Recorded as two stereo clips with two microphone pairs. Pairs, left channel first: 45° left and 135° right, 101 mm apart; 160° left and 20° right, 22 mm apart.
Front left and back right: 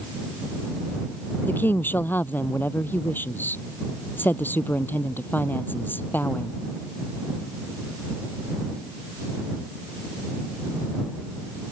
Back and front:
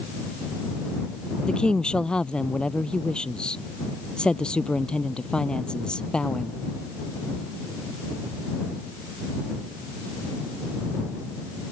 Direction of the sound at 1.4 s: 115° left.